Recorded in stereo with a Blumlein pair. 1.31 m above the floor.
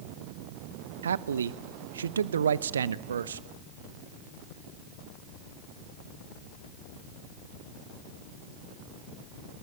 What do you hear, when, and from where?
1.0 s a man speaking: 70° right, 0.9 m